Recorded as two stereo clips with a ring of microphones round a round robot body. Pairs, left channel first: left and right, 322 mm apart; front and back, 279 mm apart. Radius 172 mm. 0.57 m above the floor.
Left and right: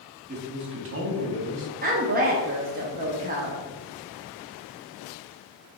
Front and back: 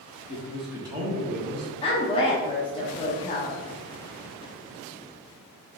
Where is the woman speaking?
55° right, 0.8 m.